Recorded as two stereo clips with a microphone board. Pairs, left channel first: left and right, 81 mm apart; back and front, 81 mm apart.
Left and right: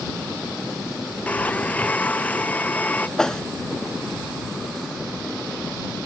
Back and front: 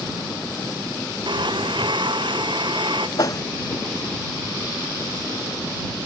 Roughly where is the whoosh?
Behind.